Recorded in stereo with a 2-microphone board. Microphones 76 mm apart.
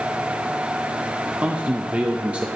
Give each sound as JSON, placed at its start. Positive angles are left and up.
{"t": 1.4, "sound": "a man speaking", "side_deg": -15, "distance_m": 0.6}